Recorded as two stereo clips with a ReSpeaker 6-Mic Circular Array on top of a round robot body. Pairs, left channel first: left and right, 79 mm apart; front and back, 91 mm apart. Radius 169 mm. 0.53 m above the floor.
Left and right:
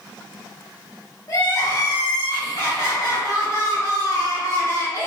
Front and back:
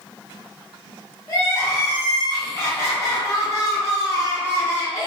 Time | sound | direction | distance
1.3 | crying | 55° left | 1.6 m